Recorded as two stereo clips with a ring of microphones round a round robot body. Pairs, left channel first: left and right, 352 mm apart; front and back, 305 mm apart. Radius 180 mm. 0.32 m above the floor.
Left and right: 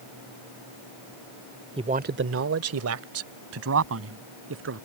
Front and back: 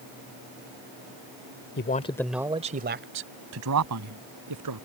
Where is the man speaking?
25° right; by 4.8 s 145° right.